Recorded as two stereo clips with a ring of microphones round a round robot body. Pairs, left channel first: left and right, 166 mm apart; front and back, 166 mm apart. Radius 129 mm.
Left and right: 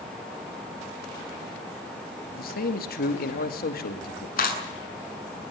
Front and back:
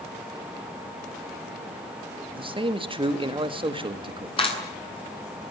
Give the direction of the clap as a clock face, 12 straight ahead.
10 o'clock.